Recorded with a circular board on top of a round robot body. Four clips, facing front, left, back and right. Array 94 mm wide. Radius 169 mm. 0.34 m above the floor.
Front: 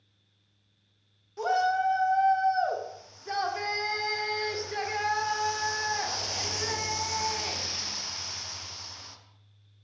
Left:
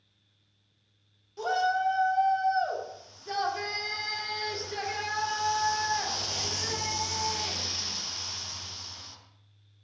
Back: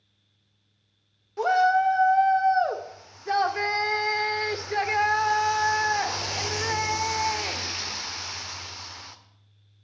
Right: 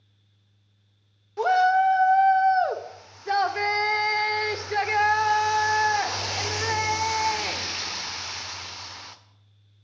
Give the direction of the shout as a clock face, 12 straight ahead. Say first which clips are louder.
Right 8 dB, back 5 dB; 4 o'clock.